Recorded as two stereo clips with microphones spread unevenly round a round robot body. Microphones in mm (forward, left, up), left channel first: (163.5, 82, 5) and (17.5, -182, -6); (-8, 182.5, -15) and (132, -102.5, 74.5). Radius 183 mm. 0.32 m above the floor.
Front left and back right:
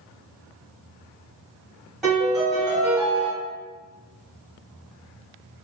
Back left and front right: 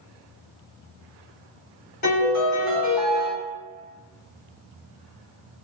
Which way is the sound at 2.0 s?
150° left.